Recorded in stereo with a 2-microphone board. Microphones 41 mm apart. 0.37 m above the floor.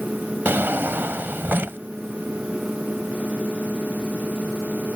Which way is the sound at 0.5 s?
65° right (ahead or behind).